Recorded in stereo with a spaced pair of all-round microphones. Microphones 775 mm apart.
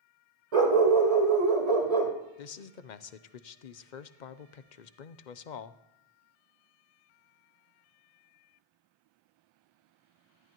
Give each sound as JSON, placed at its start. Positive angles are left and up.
{"t": 0.5, "sound": "a dog barking", "side_deg": -50, "distance_m": 1.8}
{"t": 2.4, "sound": "a man speaking", "side_deg": 70, "distance_m": 0.8}